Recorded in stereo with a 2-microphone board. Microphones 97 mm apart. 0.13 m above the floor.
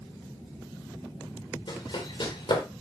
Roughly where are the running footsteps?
Left.